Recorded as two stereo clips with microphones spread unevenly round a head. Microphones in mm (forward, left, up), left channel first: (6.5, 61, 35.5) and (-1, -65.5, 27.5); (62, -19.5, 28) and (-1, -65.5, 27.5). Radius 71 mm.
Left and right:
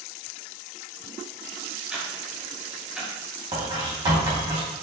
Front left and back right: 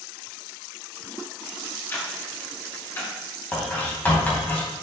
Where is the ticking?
10° right, 1.3 m.